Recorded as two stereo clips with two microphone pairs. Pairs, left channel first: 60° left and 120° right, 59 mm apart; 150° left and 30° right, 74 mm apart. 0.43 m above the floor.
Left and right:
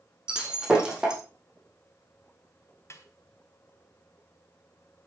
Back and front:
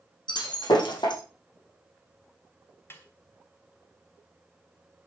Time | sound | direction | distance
0.3 | breaking glass | 165° left | 5 m
2.9 | a snare drum | 95° left | 2.5 m